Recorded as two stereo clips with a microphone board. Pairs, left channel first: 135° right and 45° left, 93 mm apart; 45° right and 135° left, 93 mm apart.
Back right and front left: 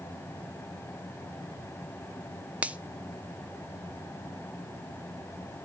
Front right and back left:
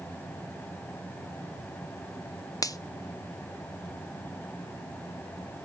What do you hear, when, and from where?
2.6 s a finger snap: 25° right, 0.8 m